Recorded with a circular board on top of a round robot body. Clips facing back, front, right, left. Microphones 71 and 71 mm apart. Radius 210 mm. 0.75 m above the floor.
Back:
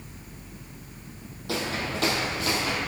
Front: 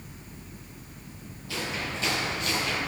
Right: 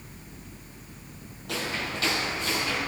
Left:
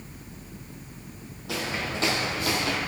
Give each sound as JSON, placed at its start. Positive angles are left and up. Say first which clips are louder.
{"t": 1.5, "sound": "footsteps", "louder": "back 3 dB, left 1 dB", "azimuth_deg": 175, "distance_m": 1.6}